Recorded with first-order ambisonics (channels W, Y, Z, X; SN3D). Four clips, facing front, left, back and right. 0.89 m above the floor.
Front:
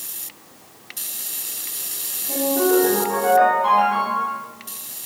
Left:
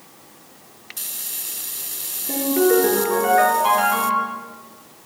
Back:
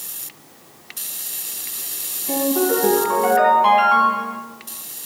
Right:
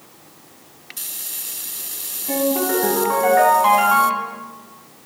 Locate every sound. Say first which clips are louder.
2.3 s a ringtone: left 2 dB, even; 120° right, 2.5 m